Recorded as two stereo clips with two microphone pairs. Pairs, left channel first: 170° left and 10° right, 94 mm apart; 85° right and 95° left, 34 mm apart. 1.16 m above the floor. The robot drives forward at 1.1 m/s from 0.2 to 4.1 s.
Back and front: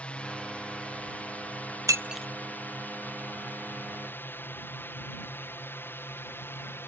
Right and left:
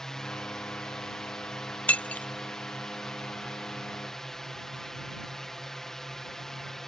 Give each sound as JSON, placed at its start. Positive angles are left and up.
{"t": 0.0, "sound": "a drone", "azimuth_deg": -135}
{"t": 1.9, "sound": "breaking glass", "azimuth_deg": -55}